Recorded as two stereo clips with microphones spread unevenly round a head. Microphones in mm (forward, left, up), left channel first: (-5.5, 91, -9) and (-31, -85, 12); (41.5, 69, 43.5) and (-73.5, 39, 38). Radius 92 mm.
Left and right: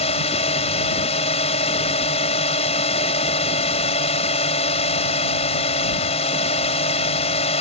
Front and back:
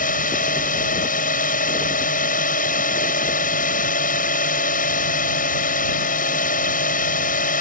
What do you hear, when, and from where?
0.0 s a drone: 20° left